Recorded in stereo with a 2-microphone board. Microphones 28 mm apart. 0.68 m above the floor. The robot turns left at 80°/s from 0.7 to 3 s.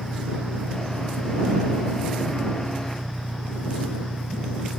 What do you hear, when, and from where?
0.0 s an engine running: 45° right; by 4.8 s 135° left